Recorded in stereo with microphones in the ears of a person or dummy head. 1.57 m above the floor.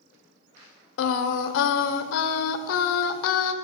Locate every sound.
1.0 s singing: 65° left (ahead or behind), 0.5 m